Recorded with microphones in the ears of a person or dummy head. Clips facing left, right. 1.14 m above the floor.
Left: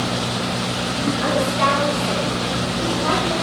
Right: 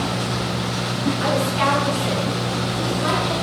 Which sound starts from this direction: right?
A woman speaking, at 1.2 s.